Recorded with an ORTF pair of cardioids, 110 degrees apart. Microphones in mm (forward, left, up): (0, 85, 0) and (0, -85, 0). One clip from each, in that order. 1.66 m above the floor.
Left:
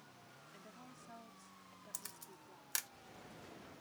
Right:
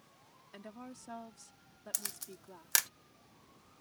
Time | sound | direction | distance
0.5 | a woman speaking | 60° right | ?
1.9 | a camera shutter | 50° right | ?